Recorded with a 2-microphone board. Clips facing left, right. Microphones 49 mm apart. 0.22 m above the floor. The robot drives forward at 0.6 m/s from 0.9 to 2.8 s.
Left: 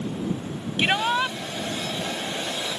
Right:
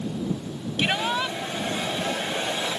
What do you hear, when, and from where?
0.8 s a shout: 20° left (ahead or behind)